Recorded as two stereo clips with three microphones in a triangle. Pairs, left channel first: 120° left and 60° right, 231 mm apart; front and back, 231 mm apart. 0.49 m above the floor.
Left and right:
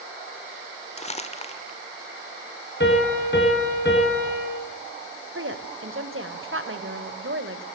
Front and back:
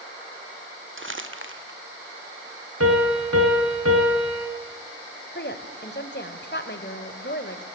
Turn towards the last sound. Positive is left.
turn(degrees=-40)